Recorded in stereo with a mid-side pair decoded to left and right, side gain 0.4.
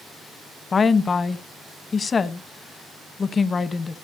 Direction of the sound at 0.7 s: 40° left.